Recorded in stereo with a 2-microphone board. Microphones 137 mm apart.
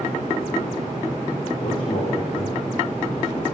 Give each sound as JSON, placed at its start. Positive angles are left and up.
{"t": 1.6, "sound": "a man speaking", "side_deg": 40, "distance_m": 7.0}